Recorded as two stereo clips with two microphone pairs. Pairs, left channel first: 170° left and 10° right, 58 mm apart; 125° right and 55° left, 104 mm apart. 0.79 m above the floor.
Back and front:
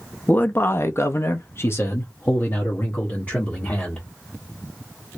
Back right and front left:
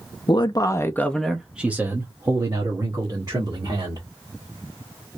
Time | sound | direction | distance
0.3 | a man speaking | 140° right | 0.6 m